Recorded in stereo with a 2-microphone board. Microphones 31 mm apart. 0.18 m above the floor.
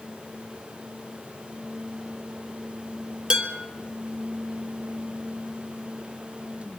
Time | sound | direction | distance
3.3 | dishes clattering | 30° right (ahead or behind) | 2.5 m